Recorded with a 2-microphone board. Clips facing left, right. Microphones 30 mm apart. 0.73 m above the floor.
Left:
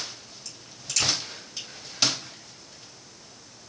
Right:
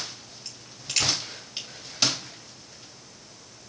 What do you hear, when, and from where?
0.5 s a crack: 40° right (ahead or behind), 2 m